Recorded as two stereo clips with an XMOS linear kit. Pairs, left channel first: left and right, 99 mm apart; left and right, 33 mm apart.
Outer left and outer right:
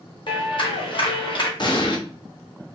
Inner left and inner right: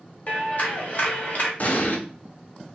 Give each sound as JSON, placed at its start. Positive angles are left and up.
{"t": 0.3, "sound": "a clap", "side_deg": 50, "distance_m": 1.4}
{"t": 1.6, "sound": "an explosion", "side_deg": 45, "distance_m": 1.0}